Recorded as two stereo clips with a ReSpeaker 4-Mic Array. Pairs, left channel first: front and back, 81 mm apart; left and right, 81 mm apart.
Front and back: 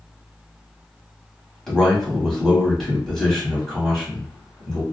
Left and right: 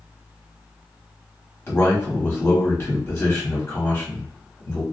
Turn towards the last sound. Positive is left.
turn(degrees=80)